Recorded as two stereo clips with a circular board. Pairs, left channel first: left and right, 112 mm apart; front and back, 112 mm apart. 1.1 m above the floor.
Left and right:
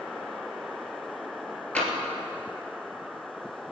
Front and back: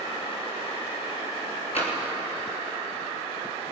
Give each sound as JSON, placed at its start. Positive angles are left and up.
{"t": 1.8, "sound": "tapping", "azimuth_deg": 10, "distance_m": 3.5}